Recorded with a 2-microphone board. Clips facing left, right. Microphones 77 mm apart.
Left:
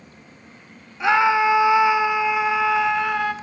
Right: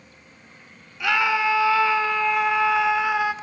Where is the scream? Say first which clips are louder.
Left 5 dB; 25° left (ahead or behind), 1.1 m; by 3.3 s 5° right (ahead or behind), 1.3 m.